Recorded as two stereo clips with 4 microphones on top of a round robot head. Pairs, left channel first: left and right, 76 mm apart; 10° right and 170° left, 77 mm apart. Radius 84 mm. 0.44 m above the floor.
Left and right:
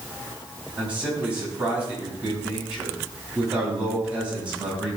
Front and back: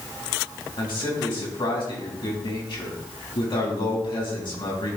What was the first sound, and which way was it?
A man speaking, 15° right.